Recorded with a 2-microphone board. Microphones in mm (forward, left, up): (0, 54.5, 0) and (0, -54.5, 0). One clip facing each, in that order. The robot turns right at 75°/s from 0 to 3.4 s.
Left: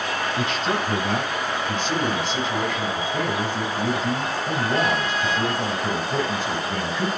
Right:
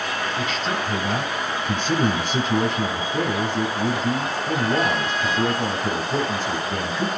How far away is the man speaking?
About 2 m.